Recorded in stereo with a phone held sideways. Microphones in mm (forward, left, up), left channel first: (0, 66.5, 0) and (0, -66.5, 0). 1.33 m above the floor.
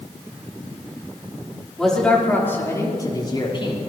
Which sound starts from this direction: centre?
A man speaking, at 1.8 s.